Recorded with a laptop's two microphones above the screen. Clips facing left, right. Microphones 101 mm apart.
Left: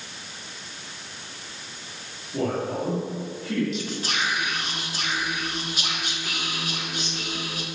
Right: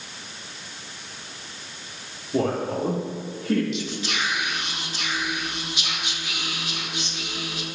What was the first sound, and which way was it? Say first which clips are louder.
A man speaking: right 2 dB; 50° right (ahead or behind).